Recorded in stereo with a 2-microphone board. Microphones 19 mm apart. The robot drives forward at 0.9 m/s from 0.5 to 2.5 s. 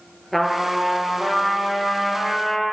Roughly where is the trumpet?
Centre.